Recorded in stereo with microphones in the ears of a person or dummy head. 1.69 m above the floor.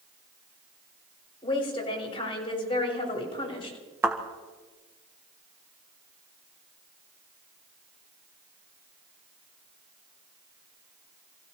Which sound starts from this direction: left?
A woman speaking, at 1.4 s.